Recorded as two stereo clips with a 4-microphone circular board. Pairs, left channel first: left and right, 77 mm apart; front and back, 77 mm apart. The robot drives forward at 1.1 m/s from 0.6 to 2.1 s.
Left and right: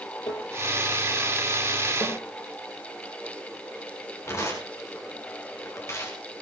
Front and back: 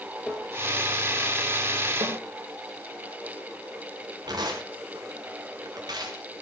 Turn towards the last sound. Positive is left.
turn(degrees=145)